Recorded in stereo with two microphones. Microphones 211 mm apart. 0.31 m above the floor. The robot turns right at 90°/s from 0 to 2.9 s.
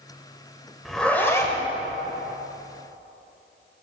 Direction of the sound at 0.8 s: Centre (ahead or behind).